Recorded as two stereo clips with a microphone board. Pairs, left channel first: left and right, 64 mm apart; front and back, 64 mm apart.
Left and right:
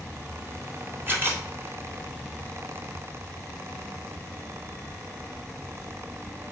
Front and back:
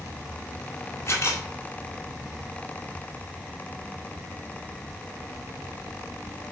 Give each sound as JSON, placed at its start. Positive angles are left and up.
{"t": 1.1, "sound": "a camera shutter", "azimuth_deg": -40, "distance_m": 1.8}